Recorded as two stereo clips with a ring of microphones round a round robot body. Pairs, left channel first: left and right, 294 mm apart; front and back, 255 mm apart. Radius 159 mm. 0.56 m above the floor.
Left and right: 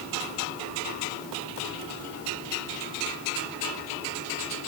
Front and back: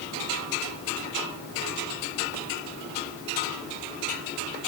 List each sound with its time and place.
Only background noise.